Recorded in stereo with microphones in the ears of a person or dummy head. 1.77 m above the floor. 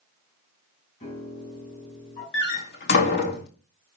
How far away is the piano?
About 9 m.